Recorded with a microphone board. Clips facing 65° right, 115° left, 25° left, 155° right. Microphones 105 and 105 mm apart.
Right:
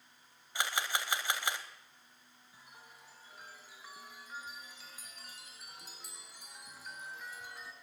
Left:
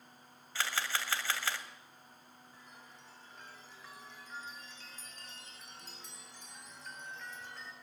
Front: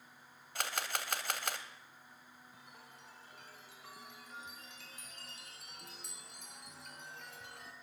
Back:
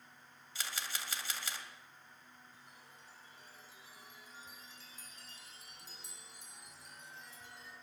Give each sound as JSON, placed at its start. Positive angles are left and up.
{"t": 0.6, "sound": "a camera shutter", "azimuth_deg": 5, "distance_m": 2.5}
{"t": 2.5, "sound": "a chime", "azimuth_deg": 15, "distance_m": 3.5}